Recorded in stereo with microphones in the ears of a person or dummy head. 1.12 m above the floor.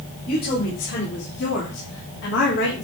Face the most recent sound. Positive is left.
turn(degrees=75)  # may be behind; listen again after turning